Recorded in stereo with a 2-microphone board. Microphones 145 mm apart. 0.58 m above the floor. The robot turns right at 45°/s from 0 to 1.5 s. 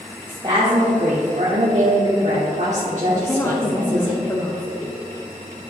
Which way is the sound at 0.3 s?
145° right.